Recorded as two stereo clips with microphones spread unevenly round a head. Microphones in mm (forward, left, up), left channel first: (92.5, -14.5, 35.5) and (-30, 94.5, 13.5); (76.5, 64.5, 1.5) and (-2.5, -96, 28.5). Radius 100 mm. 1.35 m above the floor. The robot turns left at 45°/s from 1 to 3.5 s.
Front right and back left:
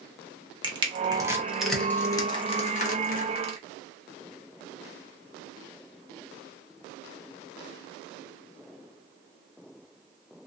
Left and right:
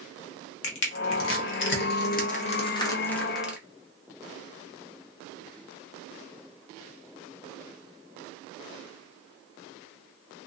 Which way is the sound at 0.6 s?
75° left.